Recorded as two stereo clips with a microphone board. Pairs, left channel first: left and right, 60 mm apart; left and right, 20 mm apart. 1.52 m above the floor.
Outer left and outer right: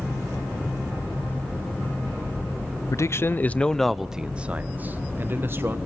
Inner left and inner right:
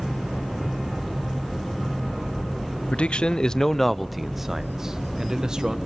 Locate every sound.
2.9 s a man speaking: 55° left (ahead or behind), 0.6 m; by 5.8 s 40° right (ahead or behind), 1.4 m